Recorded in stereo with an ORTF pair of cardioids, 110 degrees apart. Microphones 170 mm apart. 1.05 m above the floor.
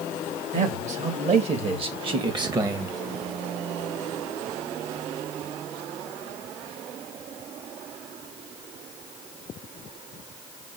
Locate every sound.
0.5 s a man speaking: 50° right, 2.5 m; by 3.0 s 15° right, 1.3 m